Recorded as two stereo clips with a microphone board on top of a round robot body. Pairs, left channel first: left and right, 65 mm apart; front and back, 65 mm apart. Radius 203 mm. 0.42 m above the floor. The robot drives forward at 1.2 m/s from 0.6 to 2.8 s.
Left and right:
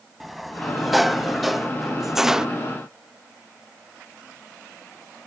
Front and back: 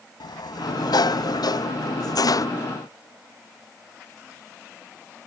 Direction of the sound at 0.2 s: Straight ahead.